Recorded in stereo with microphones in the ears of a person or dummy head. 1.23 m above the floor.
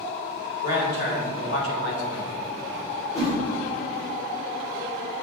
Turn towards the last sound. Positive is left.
turn(degrees=40)  # may be behind; listen again after turning